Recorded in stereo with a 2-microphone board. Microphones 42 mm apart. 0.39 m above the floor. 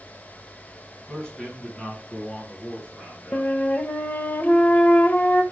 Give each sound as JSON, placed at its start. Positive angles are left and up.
{"t": 1.1, "sound": "a man speaking", "side_deg": 15, "distance_m": 3.5}
{"t": 3.3, "sound": "a flute", "side_deg": 40, "distance_m": 1.2}